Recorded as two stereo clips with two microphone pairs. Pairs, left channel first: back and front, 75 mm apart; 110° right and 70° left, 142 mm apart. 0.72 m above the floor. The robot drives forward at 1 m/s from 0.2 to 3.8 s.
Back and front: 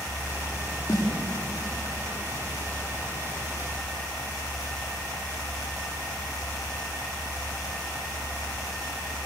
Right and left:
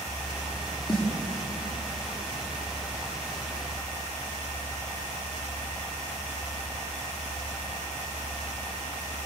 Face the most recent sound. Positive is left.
turn(degrees=-165)